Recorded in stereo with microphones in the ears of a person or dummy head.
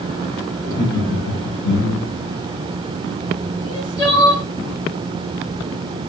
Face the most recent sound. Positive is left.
turn(degrees=25)  # may be behind; listen again after turning